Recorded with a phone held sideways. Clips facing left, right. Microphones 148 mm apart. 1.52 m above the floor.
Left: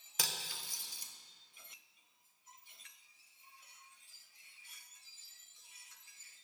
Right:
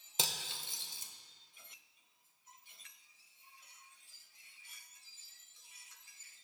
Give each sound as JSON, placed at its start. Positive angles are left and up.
{"t": 0.2, "sound": "cutlery clinking", "side_deg": -25, "distance_m": 0.6}